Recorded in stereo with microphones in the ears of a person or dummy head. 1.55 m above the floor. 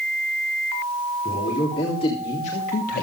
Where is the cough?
I don't hear a cough.